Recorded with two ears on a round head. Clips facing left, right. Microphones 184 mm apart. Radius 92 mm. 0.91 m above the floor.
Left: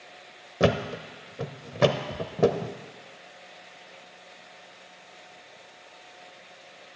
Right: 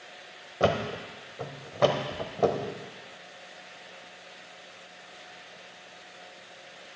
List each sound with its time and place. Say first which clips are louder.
0.6 s a thud: left 2 dB; 30° left (ahead or behind), 0.7 m